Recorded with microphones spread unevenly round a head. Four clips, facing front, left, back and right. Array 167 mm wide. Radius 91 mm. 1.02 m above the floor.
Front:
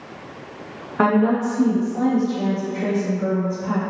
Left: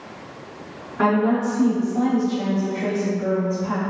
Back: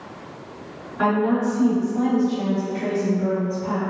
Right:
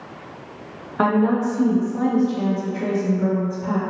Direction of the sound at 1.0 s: 30° right.